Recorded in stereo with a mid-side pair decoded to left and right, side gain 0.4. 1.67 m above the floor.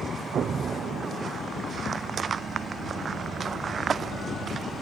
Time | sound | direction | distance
0.3 | an explosion | 60° right | 0.6 m